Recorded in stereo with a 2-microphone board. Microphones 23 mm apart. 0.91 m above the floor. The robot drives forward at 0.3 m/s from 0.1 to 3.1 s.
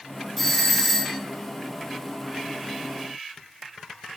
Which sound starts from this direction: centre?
A doorbell, at 0.4 s.